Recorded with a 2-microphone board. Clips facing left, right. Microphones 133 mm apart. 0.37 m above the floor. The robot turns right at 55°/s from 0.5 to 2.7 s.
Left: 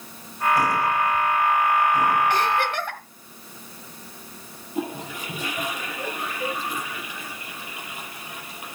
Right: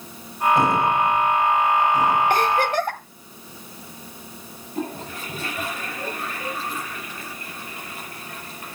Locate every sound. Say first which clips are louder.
2.3 s a giggle: right 3 dB; 55° right (ahead or behind), 2 m; by 3.0 s 40° right (ahead or behind), 2 m
4.8 s a toilet flushing: even; 15° left (ahead or behind), 7 m